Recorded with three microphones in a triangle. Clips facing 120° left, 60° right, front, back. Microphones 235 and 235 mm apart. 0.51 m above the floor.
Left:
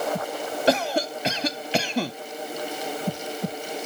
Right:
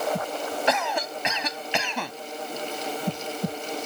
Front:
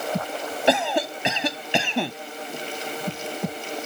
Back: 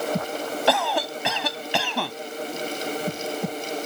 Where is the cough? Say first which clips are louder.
Left 7 dB, front 3 dB; 70° left.